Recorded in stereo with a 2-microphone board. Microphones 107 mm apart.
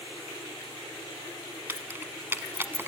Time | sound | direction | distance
1.7 | keys jangling | 20° right (ahead or behind) | 1.0 m